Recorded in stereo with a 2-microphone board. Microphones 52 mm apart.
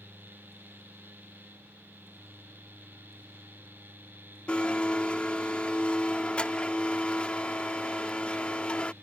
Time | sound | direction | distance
4.5 | a blender | 20° left (ahead or behind) | ?